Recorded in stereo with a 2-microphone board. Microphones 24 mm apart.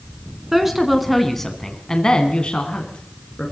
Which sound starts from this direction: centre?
A woman speaking, at 0.5 s.